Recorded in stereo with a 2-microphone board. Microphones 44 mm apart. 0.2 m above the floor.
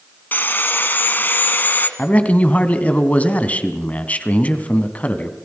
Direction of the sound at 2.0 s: 35° left (ahead or behind).